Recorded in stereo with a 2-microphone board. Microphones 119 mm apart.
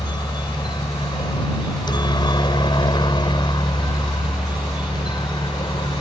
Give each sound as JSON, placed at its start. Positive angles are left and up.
{"t": 0.0, "sound": "a helicopter", "side_deg": 40}